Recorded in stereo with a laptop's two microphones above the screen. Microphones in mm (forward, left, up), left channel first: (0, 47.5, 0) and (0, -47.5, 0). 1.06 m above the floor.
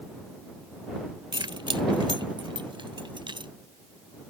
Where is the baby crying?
No baby crying in this recording.